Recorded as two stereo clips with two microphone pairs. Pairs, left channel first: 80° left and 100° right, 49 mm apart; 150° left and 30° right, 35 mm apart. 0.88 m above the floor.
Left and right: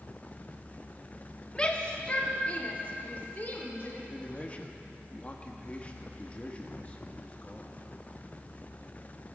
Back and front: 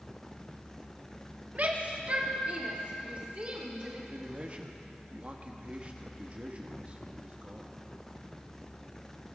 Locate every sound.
1.6 s a shout: 10° left, 1.6 m; by 4.0 s 25° left, 3.5 m
4.1 s a man speaking: 20° left, 1.4 m